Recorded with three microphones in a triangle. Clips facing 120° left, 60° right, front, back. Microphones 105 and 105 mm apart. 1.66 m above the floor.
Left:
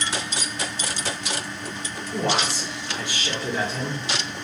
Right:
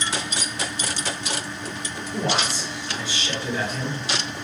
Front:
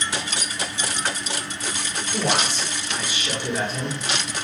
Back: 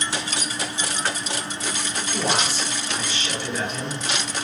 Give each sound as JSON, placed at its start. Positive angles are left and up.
{"t": 2.1, "sound": "a man speaking", "azimuth_deg": 110, "distance_m": 1.5}